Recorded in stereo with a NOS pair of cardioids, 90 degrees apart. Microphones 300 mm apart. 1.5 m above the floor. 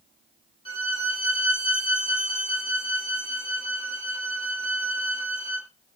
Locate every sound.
0.7 s a violin: 20° left, 2.0 m